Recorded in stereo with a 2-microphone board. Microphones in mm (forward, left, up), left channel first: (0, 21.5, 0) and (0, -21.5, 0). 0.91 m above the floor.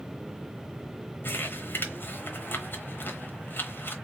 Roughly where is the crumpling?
Left.